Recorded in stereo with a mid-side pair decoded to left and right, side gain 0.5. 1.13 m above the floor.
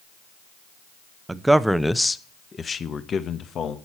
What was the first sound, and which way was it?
A man speaking, 20° right.